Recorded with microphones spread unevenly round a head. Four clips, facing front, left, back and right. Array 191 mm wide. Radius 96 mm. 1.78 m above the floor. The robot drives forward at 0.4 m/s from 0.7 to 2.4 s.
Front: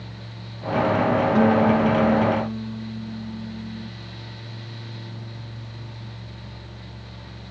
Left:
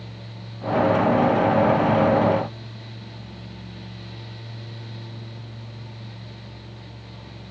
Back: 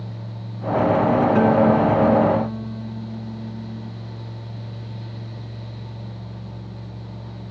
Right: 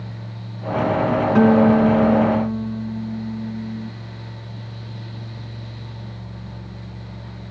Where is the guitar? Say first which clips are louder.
Right 5 dB, back 1 dB; 90° right.